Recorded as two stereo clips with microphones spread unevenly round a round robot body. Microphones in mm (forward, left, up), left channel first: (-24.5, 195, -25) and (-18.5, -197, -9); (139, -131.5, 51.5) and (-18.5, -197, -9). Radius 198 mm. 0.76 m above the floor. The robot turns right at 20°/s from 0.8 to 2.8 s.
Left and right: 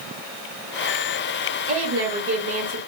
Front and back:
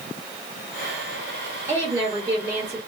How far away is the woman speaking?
About 1.0 m.